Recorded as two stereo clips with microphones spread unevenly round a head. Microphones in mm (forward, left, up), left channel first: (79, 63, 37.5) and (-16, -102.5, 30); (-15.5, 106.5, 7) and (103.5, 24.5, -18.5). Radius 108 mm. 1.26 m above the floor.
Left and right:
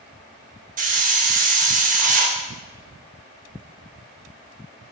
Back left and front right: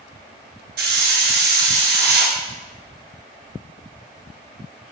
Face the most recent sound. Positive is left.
turn(degrees=-70)